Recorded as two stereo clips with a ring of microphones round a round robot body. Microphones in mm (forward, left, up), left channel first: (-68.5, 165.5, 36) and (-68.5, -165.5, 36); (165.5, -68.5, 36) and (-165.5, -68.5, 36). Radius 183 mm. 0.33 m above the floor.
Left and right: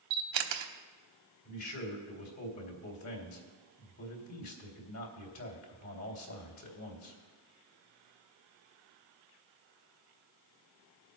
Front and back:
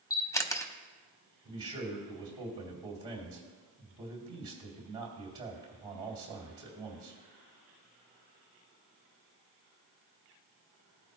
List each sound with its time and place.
0.1 s a camera shutter: 80° right, 1.0 m
1.4 s a man speaking: 105° left, 2 m